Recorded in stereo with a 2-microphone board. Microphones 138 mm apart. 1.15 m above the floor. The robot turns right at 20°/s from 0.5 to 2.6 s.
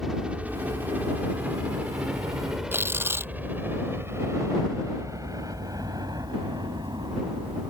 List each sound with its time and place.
0.0 s a helicopter: 5° right (ahead or behind); by 7.7 s 35° right (ahead or behind)
2.7 s tearing paper: 15° right (ahead or behind)